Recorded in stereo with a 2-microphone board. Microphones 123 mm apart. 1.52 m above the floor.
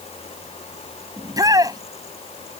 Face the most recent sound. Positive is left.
turn(degrees=-30)  # may be behind; listen again after turning